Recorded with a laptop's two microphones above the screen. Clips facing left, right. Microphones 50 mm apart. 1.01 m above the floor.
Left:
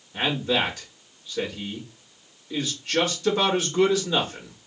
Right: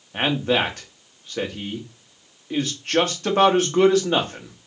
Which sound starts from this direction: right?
A man speaking, at 0.1 s.